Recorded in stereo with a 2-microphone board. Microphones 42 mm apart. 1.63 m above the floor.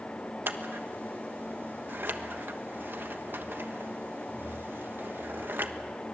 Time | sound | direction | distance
0.5 | scissors | 60° right (ahead or behind) | 1.2 m